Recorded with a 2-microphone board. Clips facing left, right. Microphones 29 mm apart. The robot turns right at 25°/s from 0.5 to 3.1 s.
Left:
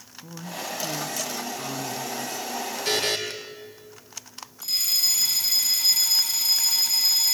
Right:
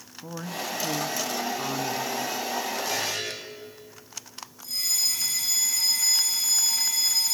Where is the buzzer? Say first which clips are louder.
Left 4 dB; 70° left (ahead or behind), 4.5 m; by 3.2 s 75° left (ahead or behind), 4.5 m.